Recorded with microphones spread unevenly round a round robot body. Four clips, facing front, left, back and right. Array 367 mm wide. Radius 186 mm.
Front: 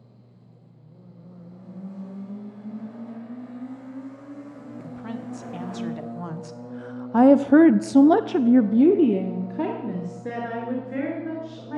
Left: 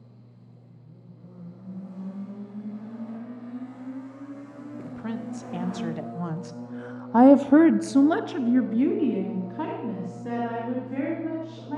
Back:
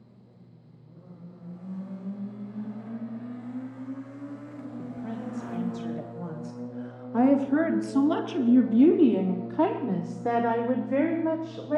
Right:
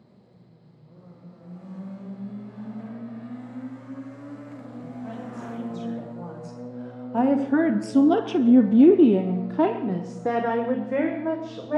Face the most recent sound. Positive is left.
turn(degrees=-90)